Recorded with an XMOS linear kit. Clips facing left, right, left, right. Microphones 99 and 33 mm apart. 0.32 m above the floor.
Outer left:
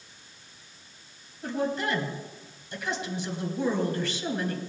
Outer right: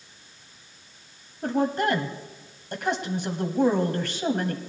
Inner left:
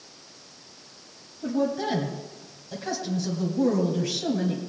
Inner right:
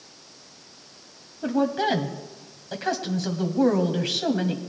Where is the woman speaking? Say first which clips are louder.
Outer right 5 dB, inner right 3 dB; 55° right (ahead or behind), 1.5 m.